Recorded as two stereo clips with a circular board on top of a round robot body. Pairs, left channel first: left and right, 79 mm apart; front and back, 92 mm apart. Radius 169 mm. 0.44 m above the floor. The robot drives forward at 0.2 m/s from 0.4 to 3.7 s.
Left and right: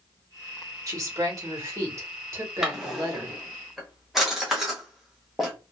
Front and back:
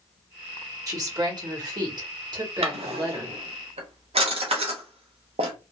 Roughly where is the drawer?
Behind.